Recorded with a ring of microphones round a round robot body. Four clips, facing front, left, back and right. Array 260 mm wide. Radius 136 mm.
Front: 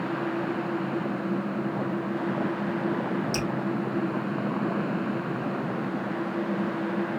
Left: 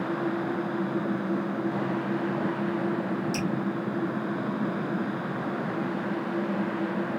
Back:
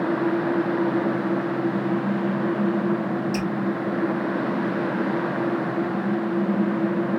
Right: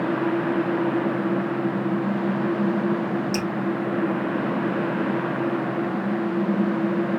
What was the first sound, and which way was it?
Dripping, 35° right.